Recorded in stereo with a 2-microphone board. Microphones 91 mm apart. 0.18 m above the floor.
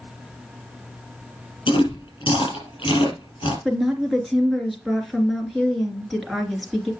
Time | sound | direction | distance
1.7 | chewing | 70° left (ahead or behind) | 4.5 m
3.6 | a woman speaking | centre (ahead or behind) | 2.5 m